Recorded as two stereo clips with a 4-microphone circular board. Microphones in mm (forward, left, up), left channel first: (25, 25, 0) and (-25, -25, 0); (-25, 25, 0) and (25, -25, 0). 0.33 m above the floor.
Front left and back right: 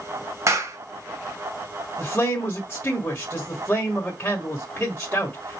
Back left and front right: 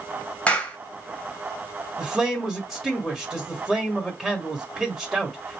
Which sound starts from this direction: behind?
A clap, at 0.5 s.